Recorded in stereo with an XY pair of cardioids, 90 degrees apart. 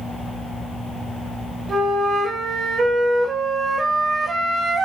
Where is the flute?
55° right, 4 m.